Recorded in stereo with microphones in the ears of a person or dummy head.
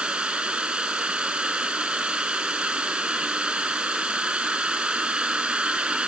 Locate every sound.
0.0 s an insect: 10° right (ahead or behind)